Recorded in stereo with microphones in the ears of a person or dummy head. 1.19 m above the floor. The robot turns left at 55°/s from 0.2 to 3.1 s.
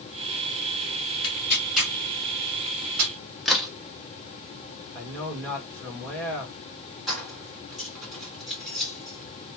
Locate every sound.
1.2 s tearing paper: 25° left (ahead or behind), 1.2 m; by 3.1 s 50° right (ahead or behind), 1.2 m
3.5 s a crack: 5° right (ahead or behind), 0.7 m
5.0 s a man speaking: 5° left (ahead or behind), 1.5 m
7.1 s keys jangling: centre (ahead or behind), 1.7 m